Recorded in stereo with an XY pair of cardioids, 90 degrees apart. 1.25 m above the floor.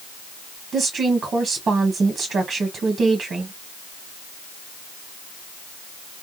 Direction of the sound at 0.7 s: 50° right.